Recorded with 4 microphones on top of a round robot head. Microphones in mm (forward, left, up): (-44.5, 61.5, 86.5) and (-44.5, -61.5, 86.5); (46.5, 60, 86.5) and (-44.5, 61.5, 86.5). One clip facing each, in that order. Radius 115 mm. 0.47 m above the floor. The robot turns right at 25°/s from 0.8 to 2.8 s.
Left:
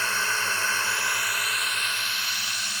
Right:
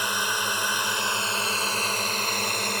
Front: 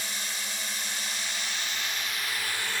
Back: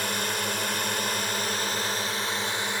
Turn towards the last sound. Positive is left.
turn(degrees=-115)